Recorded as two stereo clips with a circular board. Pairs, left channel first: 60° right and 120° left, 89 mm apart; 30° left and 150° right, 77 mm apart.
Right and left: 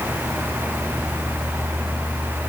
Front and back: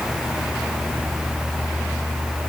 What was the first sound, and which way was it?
Only background noise.